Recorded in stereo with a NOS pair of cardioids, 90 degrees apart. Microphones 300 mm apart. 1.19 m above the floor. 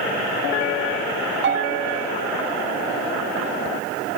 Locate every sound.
1.4 s a bell: 40° right, 1.9 m